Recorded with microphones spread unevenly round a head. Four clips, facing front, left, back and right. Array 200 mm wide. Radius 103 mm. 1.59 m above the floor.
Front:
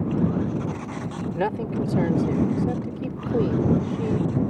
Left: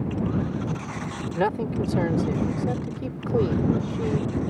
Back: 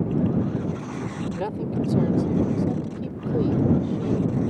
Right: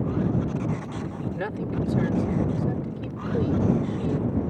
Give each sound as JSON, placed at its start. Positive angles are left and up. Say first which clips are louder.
{"t": 1.4, "sound": "a man speaking", "louder": "left 7 dB, front 3 dB", "azimuth_deg": 40}